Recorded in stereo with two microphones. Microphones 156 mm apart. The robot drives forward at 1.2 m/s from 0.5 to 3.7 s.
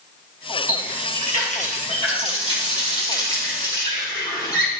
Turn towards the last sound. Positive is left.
turn(degrees=25)  # may be behind; listen again after turning